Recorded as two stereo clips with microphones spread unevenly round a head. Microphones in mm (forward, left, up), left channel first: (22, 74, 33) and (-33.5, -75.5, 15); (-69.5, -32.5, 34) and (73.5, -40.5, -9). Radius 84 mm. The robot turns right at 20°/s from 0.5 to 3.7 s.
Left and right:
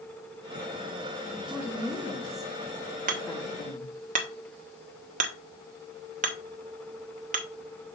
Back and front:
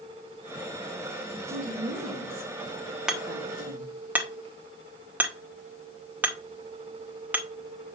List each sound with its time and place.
1.5 s a woman speaking: 35° right, 3 m; by 3.9 s 5° left, 3 m
3.1 s hammering: 110° right, 1.0 m; by 7.5 s 95° right, 1.0 m